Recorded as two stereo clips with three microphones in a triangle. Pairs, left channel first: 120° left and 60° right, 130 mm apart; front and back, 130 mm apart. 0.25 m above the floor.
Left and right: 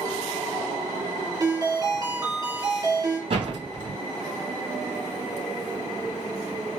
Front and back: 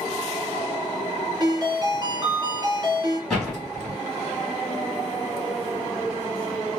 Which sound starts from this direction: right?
A door slam, at 3.3 s.